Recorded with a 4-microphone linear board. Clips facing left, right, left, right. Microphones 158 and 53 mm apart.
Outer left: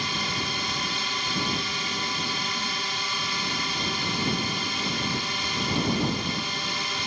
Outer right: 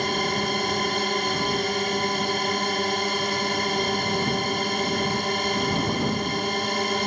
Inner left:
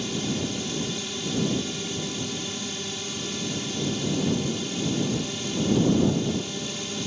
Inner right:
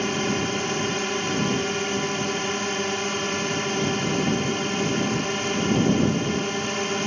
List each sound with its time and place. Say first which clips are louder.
0.0 s a drone: outer right 7 dB, inner right 5 dB; 50° right (ahead or behind)